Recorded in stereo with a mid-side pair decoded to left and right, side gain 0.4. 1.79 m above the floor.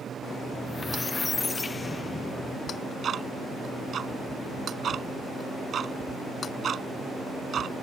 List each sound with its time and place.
0.5 s a squeak: 35° left
2.7 s ticking: 55° right